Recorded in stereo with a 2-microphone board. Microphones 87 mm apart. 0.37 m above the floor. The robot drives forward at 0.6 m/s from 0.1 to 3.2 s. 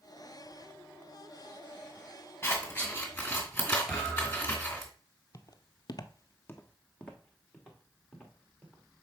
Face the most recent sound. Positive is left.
turn(degrees=0)  # may be behind; listen again after turning